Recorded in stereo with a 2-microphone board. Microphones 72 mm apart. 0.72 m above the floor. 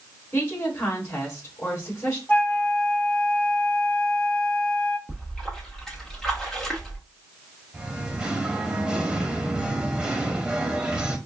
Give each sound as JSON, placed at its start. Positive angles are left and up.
{"t": 0.3, "sound": "a woman speaking", "side_deg": 35, "distance_m": 2.5}
{"t": 2.3, "sound": "a flute", "side_deg": 25, "distance_m": 0.6}
{"t": 5.1, "sound": "a splash", "side_deg": 5, "distance_m": 1.1}
{"t": 7.7, "sound": "singing", "side_deg": -10, "distance_m": 0.7}